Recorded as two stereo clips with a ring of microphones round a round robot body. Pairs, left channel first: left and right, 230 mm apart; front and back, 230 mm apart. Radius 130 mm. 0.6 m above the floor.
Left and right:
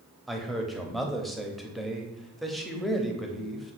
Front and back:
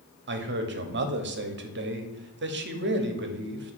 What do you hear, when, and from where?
0.3 s a man speaking: straight behind, 1.1 m